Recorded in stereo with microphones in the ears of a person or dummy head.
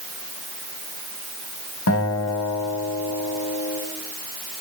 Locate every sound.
1.9 s a guitar: 75° left (ahead or behind), 3.5 m